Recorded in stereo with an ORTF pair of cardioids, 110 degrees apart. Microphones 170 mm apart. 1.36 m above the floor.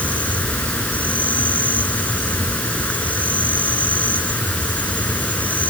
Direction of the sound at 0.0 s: 5° left.